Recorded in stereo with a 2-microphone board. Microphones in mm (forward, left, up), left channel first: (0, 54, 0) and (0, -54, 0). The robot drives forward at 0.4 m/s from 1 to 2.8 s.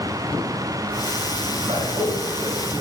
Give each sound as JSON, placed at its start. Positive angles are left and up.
{"t": 1.6, "sound": "a man speaking", "side_deg": -75, "distance_m": 4.0}